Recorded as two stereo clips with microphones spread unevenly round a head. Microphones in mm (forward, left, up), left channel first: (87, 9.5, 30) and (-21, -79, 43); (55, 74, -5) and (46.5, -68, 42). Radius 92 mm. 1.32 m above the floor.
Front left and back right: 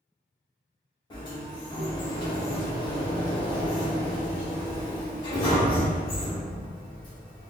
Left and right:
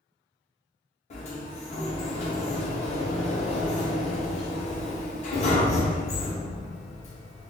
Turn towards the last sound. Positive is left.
turn(degrees=95)